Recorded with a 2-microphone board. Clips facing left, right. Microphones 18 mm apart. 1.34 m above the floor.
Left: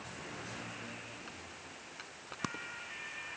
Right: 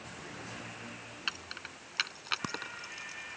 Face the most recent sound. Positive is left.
turn(degrees=-75)  # may be behind; listen again after turning